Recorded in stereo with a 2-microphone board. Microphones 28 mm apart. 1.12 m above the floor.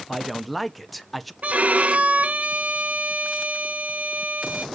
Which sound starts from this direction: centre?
A man speaking, at 0.1 s.